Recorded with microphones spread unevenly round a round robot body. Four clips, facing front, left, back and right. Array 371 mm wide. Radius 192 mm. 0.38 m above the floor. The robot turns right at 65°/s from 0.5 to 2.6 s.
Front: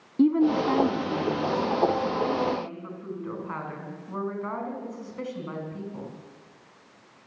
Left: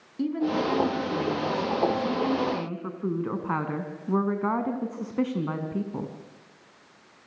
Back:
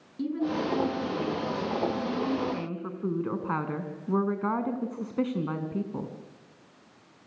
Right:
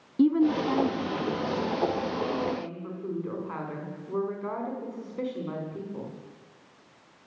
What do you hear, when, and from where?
0.2 s a woman speaking: 15° right, 4.5 m; by 6.1 s 120° left, 4.5 m